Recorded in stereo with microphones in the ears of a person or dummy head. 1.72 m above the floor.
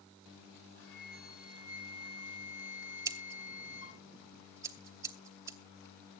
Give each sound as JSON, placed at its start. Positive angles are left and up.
{"t": 0.8, "sound": "a flute", "side_deg": 80, "distance_m": 5.5}
{"t": 3.0, "sound": "scissors", "side_deg": -20, "distance_m": 0.9}